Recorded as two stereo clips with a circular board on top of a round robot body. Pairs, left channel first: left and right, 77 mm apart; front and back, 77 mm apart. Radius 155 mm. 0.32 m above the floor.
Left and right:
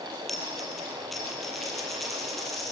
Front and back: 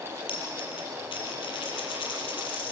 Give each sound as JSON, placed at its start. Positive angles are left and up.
{"t": 0.3, "sound": "a dropped coin", "azimuth_deg": 0, "distance_m": 4.5}